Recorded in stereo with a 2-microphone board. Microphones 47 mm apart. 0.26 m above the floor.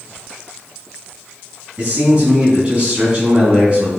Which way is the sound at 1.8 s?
25° right (ahead or behind).